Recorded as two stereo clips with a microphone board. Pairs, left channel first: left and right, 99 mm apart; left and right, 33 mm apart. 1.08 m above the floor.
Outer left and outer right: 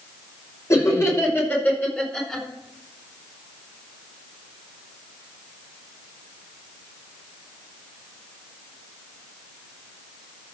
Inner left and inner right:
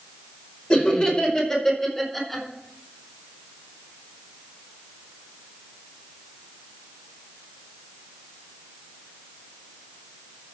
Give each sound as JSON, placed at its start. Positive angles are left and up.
{"t": 0.7, "sound": "laughter", "side_deg": 30, "distance_m": 5.0}